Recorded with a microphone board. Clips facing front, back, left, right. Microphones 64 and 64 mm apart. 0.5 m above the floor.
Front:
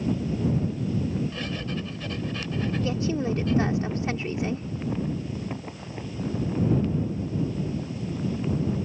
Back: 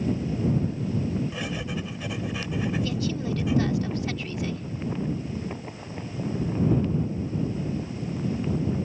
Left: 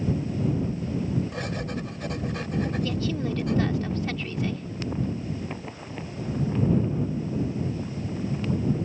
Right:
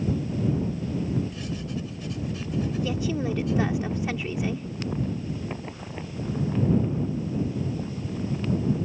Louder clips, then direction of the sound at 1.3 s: Even, left 2 dB; 105° left.